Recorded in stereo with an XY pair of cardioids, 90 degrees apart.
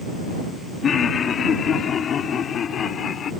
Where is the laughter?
55° left; by 3.3 s 60° left.